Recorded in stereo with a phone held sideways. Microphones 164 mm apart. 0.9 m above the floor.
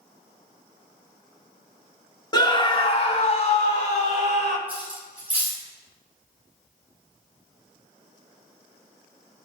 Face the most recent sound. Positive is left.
turn(degrees=-10)  # may be behind; listen again after turning